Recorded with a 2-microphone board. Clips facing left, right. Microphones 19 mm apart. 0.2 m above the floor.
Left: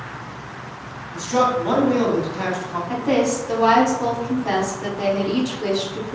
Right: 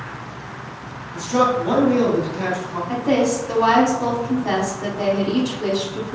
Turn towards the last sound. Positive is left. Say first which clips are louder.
# right 1 dB
turn(degrees=-5)  # may be behind; listen again after turning